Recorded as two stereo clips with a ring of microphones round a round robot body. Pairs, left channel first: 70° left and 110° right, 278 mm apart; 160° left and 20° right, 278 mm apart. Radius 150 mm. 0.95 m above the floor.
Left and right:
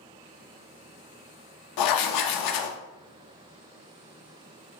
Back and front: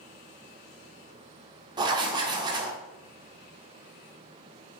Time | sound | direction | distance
1.8 | writing | 55° left | 0.6 m